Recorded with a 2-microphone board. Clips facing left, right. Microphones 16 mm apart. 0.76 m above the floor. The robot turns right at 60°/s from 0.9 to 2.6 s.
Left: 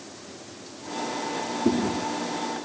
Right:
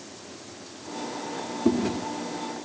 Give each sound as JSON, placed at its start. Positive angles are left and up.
{"t": 1.6, "sound": "chewing", "side_deg": -45, "distance_m": 1.3}